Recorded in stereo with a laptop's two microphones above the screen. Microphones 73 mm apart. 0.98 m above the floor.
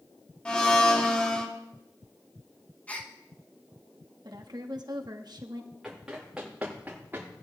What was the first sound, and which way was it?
A blender, 15° left (ahead or behind).